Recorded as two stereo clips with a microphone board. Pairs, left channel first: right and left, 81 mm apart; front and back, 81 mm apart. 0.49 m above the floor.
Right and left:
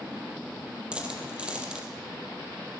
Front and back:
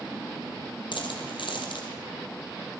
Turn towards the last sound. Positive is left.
turn(degrees=15)